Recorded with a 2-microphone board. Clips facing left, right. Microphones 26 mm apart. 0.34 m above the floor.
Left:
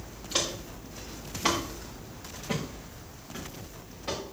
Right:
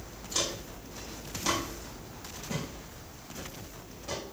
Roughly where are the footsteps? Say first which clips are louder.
Left 2 dB; left.